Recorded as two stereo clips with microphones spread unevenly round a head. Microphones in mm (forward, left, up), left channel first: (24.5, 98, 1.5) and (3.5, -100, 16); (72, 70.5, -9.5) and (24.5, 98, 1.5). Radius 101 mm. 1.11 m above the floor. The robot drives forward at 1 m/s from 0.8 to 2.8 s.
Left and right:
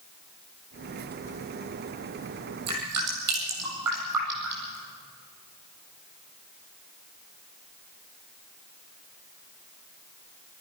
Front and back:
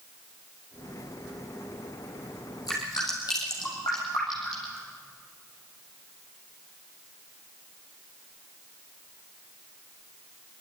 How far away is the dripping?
About 8.5 m.